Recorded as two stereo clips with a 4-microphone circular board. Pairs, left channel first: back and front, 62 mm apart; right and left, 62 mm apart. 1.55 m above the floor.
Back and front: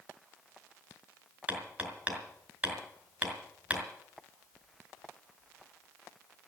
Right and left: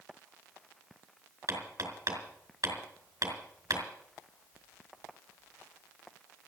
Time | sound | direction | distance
1.5 | hammering | 65° left | 5 m